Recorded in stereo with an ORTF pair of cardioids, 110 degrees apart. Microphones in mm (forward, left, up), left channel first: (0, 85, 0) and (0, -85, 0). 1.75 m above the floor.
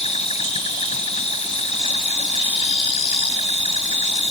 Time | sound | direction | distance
0.0 | an insect | 40° left | ?